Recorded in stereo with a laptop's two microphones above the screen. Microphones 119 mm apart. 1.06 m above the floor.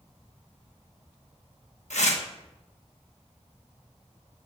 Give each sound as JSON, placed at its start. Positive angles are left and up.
{"t": 1.9, "sound": "tearing paper", "side_deg": 70, "distance_m": 1.1}